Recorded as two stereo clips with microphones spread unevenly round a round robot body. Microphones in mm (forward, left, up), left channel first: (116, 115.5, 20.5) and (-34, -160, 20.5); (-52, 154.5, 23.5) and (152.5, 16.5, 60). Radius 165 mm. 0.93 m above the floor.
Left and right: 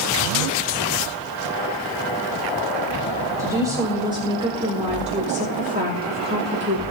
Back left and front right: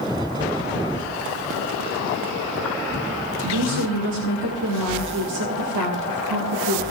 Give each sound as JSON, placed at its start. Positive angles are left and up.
{"t": 3.4, "sound": "a woman speaking", "azimuth_deg": -40, "distance_m": 4.0}